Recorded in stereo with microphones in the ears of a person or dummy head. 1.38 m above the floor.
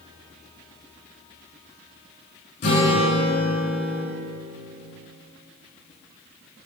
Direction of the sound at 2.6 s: 35° left (ahead or behind).